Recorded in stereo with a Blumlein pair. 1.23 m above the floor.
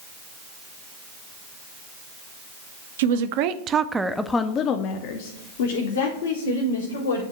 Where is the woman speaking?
55° right, 0.7 m; by 7.2 s 70° left, 1.7 m.